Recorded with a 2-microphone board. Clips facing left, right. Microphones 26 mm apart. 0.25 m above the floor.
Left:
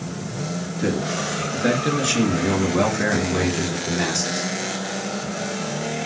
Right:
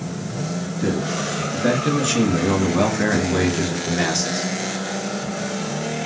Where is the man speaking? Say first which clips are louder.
Even; 20° left (ahead or behind), 4 m; by 4.5 s 25° right (ahead or behind), 4 m.